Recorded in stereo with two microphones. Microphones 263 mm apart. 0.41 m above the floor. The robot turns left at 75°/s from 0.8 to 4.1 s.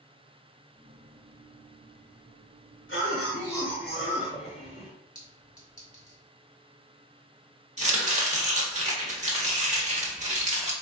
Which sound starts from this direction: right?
Chopping, at 7.8 s.